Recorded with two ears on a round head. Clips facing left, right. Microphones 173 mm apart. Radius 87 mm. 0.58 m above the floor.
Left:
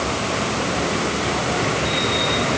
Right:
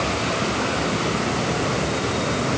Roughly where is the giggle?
I don't hear a giggle.